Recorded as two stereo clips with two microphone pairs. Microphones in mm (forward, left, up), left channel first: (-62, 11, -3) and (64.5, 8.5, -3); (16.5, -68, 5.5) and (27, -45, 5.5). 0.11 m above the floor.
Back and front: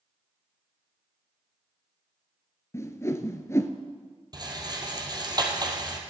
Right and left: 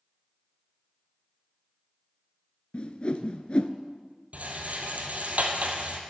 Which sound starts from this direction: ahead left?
A rattle, at 4.3 s.